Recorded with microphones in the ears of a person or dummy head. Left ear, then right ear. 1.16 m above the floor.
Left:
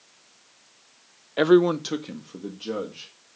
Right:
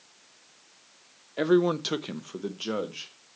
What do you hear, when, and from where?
1.4 s a man speaking: 40° left (ahead or behind), 0.6 m; by 3.4 s 65° right (ahead or behind), 2 m